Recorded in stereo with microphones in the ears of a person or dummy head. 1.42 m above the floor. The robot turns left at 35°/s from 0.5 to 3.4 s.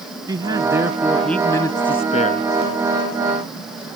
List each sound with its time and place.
0.3 s a man speaking: 155° right; by 2.5 s 135° left